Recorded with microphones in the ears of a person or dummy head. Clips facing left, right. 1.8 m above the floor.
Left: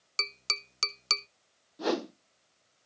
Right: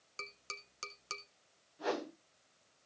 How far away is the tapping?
About 0.5 m.